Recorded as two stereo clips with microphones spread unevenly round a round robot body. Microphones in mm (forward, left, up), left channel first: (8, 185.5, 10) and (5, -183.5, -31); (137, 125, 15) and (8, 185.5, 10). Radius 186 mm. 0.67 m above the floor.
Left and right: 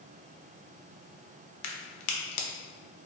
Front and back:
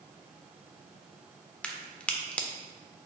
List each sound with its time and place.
1.6 s a crack: 60° left, 0.7 m